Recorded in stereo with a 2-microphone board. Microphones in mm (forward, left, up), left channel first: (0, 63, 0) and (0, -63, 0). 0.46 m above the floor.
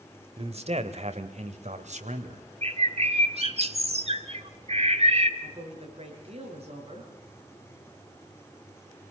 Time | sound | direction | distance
0.4 | a man speaking | 55° right (ahead or behind) | 1.8 m
2.6 | a bird | 55° right (ahead or behind) | 1.5 m
5.4 | a woman speaking | 50° right (ahead or behind) | 6.5 m